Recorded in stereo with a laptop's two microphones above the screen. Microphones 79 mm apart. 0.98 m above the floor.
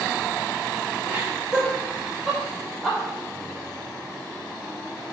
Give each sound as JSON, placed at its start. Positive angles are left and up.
{"t": 1.1, "sound": "laughter", "side_deg": -20, "distance_m": 1.8}